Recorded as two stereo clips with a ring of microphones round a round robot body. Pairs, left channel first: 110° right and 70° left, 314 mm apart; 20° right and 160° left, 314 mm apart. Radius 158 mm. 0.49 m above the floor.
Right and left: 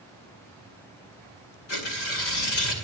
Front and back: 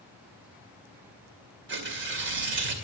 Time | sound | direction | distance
1.7 | tearing paper | 150° right | 2 m